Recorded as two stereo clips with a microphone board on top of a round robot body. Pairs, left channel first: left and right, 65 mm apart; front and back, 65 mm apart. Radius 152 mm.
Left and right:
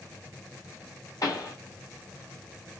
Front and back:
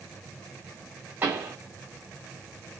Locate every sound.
1.2 s a pop: 120° left, 2.5 m